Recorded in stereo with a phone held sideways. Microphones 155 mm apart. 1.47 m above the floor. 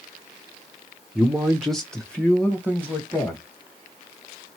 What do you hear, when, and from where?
1.1 s a man speaking: 5° right (ahead or behind), 0.8 m; by 3.4 s 10° left (ahead or behind), 1.9 m